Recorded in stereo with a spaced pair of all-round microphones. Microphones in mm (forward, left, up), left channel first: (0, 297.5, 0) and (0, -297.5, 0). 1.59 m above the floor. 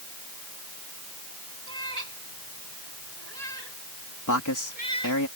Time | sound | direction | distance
1.7 | a cat meowing | 85° right | ?
4.3 | a man speaking | 30° left (ahead or behind) | ?